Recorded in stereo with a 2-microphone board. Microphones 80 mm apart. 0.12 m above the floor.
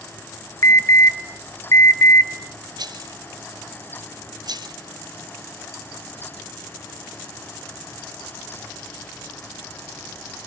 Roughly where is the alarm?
Left.